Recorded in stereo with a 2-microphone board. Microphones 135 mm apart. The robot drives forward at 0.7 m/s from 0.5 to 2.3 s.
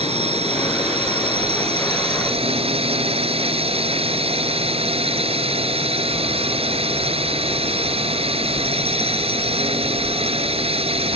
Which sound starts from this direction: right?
A drone, at 0.0 s.